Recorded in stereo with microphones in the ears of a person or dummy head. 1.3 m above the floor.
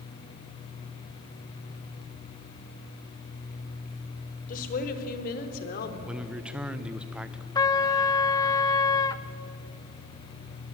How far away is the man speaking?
About 1.2 m.